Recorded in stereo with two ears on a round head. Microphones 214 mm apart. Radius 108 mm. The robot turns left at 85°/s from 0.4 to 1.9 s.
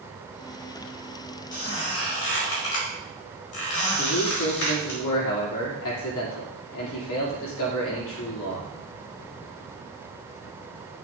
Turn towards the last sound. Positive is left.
turn(degrees=60)  # may be behind; listen again after turning